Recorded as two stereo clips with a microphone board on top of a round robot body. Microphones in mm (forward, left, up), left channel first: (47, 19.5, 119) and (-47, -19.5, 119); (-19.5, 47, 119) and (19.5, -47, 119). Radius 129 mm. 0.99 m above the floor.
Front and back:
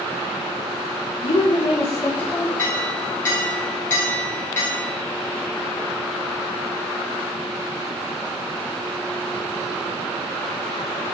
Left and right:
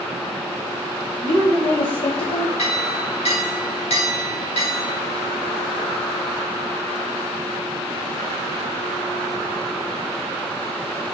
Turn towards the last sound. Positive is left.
turn(degrees=90)